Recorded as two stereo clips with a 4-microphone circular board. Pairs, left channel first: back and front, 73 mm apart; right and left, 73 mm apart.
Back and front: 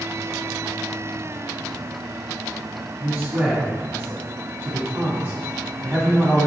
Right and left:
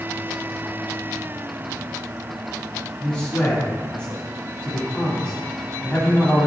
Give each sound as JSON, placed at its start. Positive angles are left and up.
{"t": 3.0, "sound": "a man speaking", "azimuth_deg": -30, "distance_m": 1.2}